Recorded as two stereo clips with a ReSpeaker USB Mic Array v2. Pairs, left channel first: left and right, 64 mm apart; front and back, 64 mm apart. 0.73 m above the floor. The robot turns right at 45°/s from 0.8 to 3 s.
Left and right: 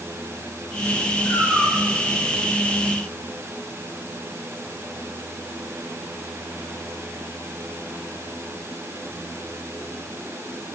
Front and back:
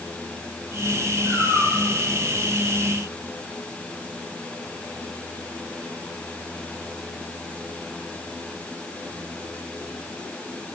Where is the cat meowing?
35° right, 7.5 m; by 1.8 s 10° right, 7.5 m.